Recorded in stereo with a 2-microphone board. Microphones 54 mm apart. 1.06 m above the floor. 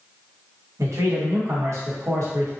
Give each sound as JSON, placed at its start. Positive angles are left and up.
{"t": 0.8, "sound": "a man speaking", "side_deg": -60, "distance_m": 1.0}